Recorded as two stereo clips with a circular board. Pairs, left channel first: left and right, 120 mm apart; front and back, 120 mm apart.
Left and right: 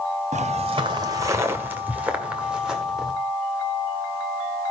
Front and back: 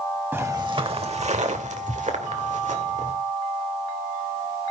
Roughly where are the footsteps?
Right.